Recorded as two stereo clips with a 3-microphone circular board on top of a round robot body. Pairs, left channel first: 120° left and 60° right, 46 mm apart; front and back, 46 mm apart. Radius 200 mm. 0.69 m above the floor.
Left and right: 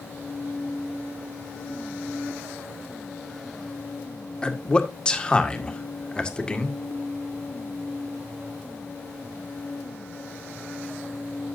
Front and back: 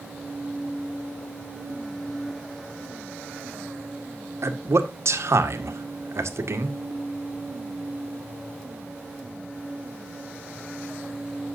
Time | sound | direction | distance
4.4 | a man speaking | 170° right | 1.6 m